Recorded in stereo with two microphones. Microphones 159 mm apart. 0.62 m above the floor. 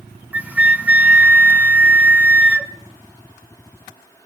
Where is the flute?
10° right (ahead or behind), 1.2 m.